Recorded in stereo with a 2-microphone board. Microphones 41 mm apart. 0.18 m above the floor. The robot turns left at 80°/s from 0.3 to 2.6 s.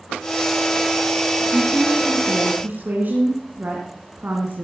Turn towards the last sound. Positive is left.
turn(degrees=-85)